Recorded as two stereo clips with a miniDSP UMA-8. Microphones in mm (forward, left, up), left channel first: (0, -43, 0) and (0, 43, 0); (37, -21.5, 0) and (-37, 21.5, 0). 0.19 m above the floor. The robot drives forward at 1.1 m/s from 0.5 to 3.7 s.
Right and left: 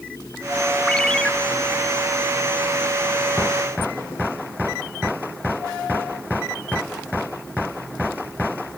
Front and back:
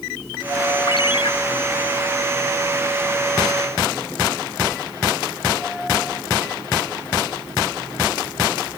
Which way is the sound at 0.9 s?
10° right.